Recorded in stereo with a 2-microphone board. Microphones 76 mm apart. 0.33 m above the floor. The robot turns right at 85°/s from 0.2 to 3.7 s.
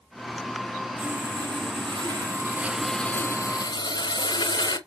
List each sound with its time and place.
1.0 s sawing: 160° right, 0.7 m; by 4.8 s 70° left, 0.7 m